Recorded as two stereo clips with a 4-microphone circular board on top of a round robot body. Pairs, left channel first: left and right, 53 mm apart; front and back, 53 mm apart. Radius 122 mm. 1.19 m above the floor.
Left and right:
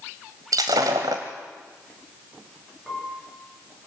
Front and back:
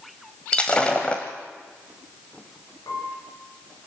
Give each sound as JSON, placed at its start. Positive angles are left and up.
{"t": 0.5, "sound": "breaking glass", "azimuth_deg": -70, "distance_m": 1.3}
{"t": 2.9, "sound": "a piano", "azimuth_deg": -10, "distance_m": 6.5}